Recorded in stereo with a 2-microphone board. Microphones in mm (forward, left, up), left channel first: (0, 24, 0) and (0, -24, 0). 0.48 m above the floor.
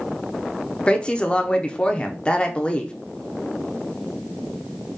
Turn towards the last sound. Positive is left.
turn(degrees=20)  # may be behind; listen again after turning